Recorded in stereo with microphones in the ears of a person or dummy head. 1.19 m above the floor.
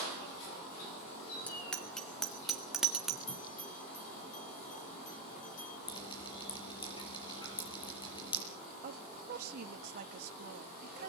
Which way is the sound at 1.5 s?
Centre (ahead or behind).